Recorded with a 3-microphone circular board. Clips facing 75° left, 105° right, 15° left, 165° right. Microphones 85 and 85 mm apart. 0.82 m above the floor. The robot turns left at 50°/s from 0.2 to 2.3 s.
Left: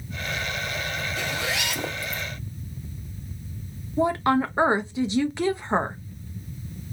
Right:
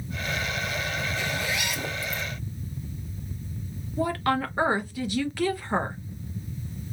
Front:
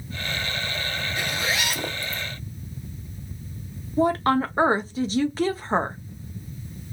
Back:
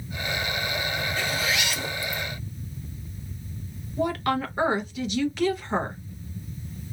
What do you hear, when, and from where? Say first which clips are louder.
1.2 s a zipper: left 1 dB, front 2 dB; 90° left, 1.0 m; by 2.2 s 35° left, 1.0 m
4.0 s a woman speaking: left 4 dB, front 5 dB; 25° left, 0.7 m